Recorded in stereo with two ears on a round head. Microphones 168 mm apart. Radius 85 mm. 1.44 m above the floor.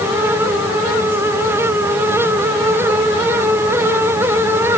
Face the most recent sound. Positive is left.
No sound to turn to.